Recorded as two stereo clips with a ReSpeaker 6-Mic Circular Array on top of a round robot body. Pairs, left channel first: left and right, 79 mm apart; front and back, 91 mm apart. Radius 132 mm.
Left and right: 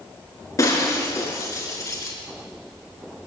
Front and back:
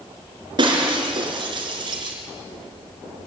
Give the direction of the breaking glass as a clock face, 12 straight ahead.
7 o'clock.